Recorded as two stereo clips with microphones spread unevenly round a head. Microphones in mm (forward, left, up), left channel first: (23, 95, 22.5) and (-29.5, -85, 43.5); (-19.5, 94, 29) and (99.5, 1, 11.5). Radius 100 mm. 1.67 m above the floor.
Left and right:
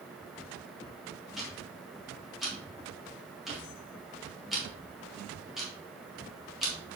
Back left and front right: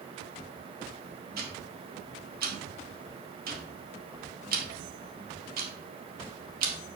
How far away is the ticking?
About 1.7 m.